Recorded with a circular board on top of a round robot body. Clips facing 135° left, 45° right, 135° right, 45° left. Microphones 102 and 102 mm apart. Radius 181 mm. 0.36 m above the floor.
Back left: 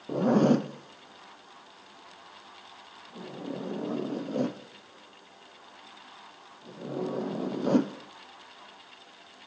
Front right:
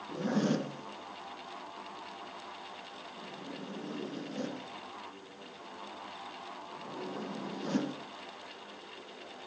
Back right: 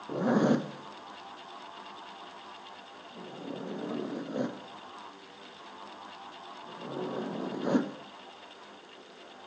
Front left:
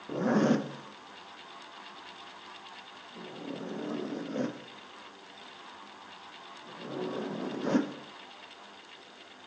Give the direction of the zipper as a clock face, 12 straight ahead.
7 o'clock.